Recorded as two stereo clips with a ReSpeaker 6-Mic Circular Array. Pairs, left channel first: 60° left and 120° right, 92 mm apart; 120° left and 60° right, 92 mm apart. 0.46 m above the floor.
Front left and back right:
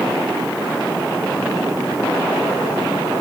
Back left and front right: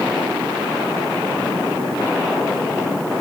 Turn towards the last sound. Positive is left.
No sound to turn to.